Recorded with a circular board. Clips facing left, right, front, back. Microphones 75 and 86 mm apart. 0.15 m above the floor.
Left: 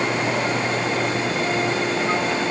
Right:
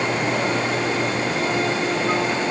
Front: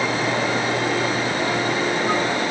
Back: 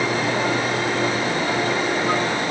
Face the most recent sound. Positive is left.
No sound to turn to.